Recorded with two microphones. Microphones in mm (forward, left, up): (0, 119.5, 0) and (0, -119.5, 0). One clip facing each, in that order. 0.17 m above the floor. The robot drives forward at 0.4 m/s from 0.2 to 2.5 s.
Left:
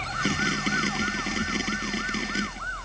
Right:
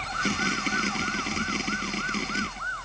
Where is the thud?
I don't hear a thud.